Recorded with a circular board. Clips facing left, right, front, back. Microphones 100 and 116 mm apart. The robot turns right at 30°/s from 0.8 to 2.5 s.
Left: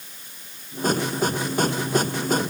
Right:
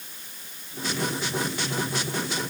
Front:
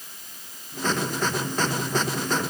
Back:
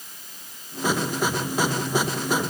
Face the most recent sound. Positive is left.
No sound to turn to.